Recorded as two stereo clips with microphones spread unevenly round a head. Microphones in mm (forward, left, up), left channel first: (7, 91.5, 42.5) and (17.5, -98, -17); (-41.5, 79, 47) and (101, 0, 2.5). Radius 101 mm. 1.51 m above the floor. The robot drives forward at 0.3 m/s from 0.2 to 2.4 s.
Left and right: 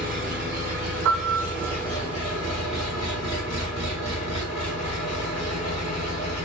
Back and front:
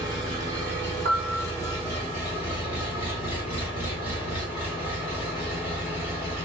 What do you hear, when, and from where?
0.0 s an engine running: 140° right, 1.0 m; by 6.5 s 160° right, 1.5 m
1.1 s a piano: 60° right, 0.7 m; by 1.8 s 80° right, 0.7 m